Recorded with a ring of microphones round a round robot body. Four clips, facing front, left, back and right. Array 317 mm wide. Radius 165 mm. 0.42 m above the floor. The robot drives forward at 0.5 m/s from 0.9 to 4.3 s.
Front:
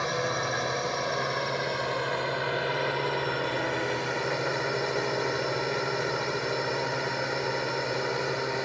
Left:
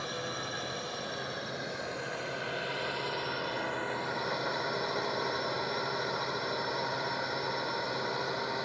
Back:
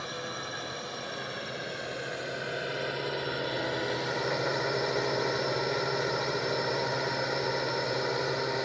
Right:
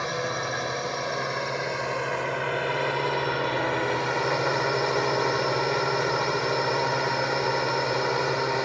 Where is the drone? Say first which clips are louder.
Right 9 dB, front 9 dB; 45° right; by 8.7 s 85° right.